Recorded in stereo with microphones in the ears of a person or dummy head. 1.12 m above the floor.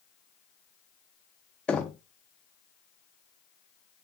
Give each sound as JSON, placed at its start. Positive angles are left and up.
{"t": 1.7, "sound": "knocking", "side_deg": 5, "distance_m": 0.7}